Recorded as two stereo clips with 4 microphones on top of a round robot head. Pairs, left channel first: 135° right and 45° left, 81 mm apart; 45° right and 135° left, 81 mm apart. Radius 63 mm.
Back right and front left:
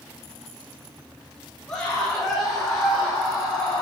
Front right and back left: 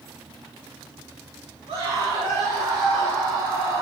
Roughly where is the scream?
Behind left.